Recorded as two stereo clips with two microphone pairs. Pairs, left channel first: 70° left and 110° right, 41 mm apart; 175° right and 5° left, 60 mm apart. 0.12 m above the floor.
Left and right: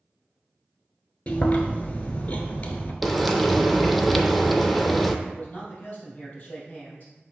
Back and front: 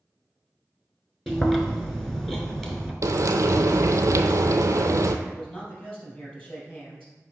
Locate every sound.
1.3 s chewing: 100° left, 1.0 m
3.0 s frying: 25° right, 0.6 m
5.2 s a man speaking: 125° left, 3 m